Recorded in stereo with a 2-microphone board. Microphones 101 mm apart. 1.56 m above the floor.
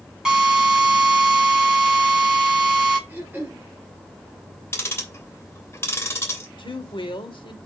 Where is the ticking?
25° left (ahead or behind), 3 m.